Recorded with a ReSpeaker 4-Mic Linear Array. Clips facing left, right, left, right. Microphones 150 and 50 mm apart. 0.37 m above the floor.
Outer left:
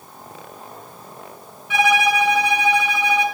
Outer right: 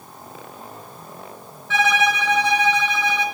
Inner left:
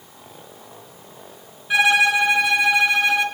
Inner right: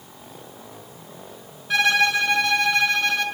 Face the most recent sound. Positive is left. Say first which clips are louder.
# outer left 2 dB, inner left 3 dB
turn(degrees=10)  # may be behind; listen again after turning